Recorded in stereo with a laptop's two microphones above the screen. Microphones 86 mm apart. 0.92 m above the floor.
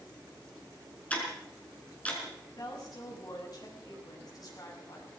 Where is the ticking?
20° left (ahead or behind), 5 m.